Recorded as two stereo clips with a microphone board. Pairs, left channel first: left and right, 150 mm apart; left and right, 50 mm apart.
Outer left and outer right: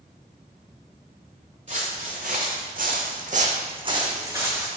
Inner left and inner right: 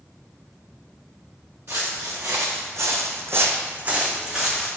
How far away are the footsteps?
About 1.2 m.